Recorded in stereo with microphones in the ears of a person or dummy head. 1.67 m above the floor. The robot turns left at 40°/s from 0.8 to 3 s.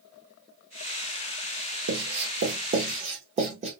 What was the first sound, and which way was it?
Writing, 65° right (ahead or behind).